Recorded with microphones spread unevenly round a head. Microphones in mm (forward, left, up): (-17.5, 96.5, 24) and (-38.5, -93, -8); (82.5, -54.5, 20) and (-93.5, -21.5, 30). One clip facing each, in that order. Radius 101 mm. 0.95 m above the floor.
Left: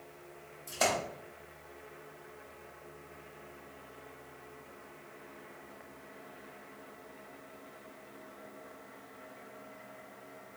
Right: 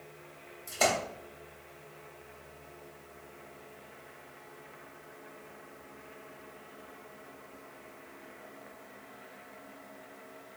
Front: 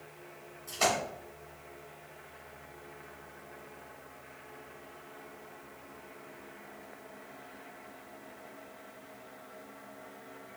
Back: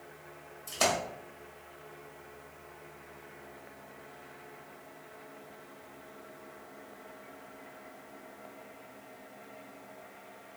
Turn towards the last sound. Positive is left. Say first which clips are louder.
# right 2 dB, even
turn(degrees=175)